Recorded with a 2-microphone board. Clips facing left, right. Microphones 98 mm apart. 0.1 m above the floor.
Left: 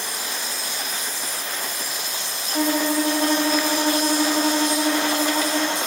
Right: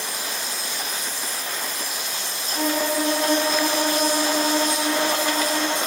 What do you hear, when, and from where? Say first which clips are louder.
2.5 s a violin: left 2 dB; 30° left (ahead or behind), 5.5 m